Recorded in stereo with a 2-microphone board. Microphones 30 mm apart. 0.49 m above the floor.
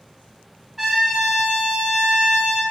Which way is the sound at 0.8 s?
10° right (ahead or behind).